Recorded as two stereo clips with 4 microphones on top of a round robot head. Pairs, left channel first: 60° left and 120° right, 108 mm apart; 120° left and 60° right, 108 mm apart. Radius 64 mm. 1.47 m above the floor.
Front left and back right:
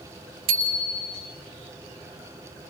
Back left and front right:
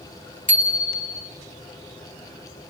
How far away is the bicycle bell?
About 4.5 m.